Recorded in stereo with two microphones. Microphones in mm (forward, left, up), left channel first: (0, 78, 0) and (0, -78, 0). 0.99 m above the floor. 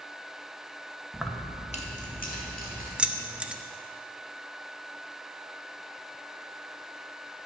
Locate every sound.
1.1 s keys jangling: 10° right (ahead or behind), 0.7 m; by 2.9 s 70° left (ahead or behind), 2.5 m
3.0 s keys jangling: 5° right (ahead or behind), 0.5 m